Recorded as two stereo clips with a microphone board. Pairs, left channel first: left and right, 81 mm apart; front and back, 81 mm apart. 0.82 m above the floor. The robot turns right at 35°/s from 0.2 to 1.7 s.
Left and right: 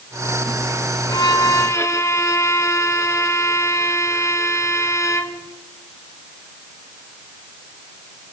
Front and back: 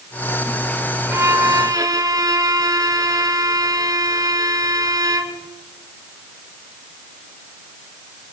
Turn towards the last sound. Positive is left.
turn(degrees=140)